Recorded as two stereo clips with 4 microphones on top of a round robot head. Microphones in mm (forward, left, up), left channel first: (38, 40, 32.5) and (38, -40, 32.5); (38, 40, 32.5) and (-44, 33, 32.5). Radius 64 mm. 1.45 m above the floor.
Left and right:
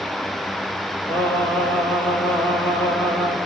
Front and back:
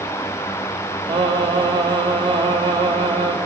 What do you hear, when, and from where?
1.1 s singing: 160° left, 6 m